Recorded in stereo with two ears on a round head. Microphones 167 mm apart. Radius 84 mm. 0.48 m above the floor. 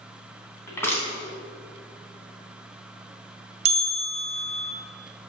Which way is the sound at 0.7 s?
15° left (ahead or behind).